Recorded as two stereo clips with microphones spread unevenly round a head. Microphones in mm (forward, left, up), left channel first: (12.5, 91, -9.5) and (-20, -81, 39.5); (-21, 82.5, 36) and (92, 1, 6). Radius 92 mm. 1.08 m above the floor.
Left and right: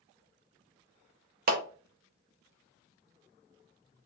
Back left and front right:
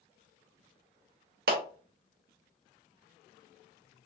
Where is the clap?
60° right, 0.9 m.